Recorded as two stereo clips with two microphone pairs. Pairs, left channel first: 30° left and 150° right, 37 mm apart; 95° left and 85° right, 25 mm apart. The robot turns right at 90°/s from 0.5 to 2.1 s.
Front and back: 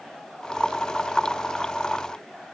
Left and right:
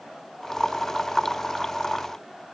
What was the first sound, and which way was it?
Only background noise.